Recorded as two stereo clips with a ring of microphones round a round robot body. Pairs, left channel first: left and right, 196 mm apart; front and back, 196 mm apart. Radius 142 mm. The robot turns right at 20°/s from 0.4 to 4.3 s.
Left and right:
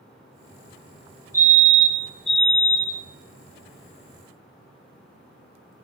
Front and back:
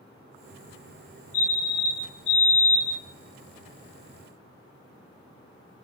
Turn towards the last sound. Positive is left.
turn(degrees=45)